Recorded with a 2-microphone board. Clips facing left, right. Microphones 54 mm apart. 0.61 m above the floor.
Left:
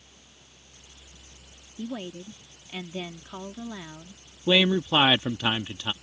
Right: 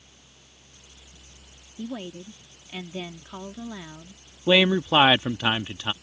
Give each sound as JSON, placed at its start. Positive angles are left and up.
{"t": 1.8, "sound": "a woman speaking", "side_deg": 0}
{"t": 4.5, "sound": "a man speaking", "side_deg": -25}